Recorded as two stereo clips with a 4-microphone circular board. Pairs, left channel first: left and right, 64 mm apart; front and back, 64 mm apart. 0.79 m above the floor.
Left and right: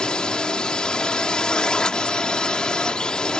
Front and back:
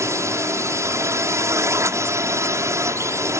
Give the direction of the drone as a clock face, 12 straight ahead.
7 o'clock.